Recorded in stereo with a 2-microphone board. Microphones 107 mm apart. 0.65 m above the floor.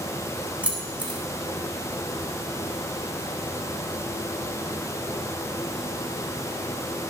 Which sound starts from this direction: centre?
Keys jangling, at 0.6 s.